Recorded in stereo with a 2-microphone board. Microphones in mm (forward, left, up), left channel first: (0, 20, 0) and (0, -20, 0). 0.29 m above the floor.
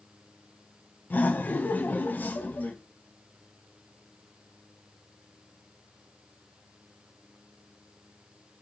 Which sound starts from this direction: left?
Laughter, at 1.1 s.